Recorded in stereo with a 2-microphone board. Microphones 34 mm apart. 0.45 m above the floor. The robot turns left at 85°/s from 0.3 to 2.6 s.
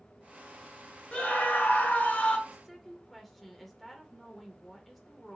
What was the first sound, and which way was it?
A scream, 140° left.